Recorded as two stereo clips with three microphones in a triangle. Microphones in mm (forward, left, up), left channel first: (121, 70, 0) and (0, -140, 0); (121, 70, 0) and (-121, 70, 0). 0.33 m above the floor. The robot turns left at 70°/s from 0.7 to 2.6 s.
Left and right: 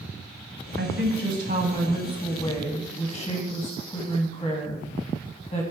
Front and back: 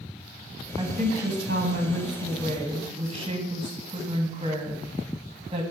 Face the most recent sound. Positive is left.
turn(degrees=115)